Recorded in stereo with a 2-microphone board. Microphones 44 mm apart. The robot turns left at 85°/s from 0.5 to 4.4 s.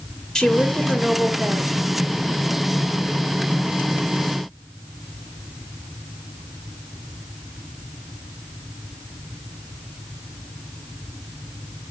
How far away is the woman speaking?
About 2 m.